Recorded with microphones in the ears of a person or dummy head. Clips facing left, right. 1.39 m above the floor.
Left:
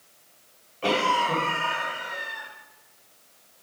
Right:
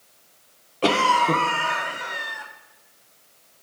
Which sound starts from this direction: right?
A cough, at 0.8 s.